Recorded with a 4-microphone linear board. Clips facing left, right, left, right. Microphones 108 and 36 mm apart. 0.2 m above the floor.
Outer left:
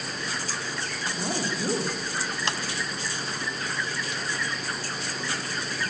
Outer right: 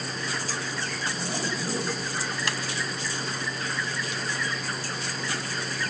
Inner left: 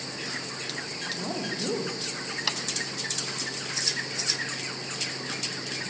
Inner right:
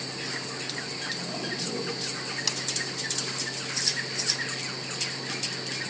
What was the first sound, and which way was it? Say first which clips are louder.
A woman speaking: outer left 5 dB, inner left 1 dB; 55° left (ahead or behind).